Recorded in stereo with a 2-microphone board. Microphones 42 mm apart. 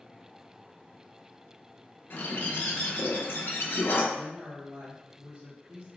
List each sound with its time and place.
2.1 s a bird: 65° left (ahead or behind), 0.6 m
4.1 s a woman speaking: 60° right (ahead or behind), 1.1 m